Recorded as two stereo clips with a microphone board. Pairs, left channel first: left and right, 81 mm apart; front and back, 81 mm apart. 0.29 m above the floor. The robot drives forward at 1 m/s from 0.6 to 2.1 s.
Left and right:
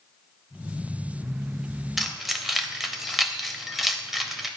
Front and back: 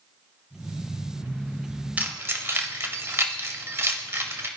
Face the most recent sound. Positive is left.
turn(degrees=-175)